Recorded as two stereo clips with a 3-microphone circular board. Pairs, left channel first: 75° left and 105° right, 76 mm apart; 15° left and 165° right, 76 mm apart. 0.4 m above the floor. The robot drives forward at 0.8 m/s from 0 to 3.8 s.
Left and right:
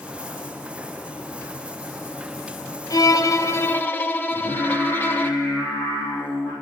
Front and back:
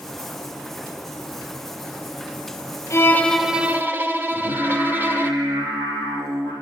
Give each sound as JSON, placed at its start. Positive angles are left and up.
{"t": 2.9, "sound": "a violin", "azimuth_deg": 55, "distance_m": 0.7}
{"t": 4.3, "sound": "singing", "azimuth_deg": 180, "distance_m": 5.0}